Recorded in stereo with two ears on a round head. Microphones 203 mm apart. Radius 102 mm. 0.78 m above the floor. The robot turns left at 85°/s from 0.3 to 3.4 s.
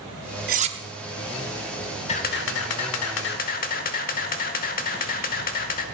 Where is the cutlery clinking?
45° right (ahead or behind), 0.8 m; by 0.8 s 20° right (ahead or behind), 0.8 m.